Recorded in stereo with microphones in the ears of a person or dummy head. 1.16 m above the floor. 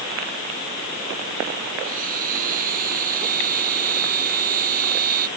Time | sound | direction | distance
1.8 | a blender | 45° right (ahead or behind) | ?